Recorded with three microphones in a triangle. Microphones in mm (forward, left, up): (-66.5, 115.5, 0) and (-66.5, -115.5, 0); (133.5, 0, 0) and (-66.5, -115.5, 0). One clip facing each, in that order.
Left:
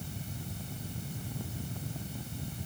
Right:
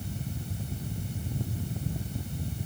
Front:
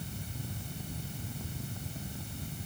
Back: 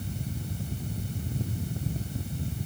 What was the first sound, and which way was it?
Only background noise.